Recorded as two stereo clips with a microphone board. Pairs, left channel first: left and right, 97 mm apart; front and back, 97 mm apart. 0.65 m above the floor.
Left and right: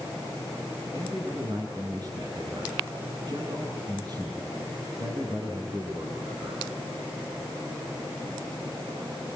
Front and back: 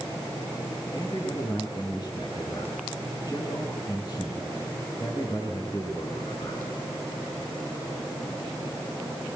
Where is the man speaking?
50° right, 9 m.